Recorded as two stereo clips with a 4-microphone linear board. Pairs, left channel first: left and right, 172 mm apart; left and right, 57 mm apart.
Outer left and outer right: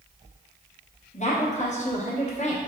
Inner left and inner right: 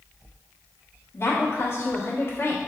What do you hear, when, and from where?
1.1 s a woman speaking: 45° left (ahead or behind), 1.0 m